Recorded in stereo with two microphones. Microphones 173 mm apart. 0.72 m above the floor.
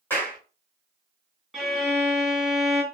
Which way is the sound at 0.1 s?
15° left (ahead or behind).